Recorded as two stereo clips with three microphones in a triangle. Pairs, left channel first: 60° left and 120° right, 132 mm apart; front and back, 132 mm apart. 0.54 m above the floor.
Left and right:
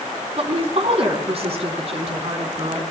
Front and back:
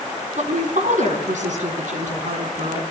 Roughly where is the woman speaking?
Behind.